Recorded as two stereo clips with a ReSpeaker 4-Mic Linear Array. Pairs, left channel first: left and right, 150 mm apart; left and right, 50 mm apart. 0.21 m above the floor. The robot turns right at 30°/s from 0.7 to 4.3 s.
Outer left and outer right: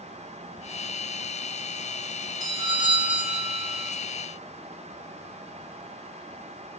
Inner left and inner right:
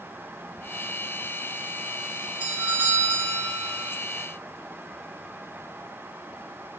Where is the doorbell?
135° right, 2 m; by 3.9 s 90° right, 2 m.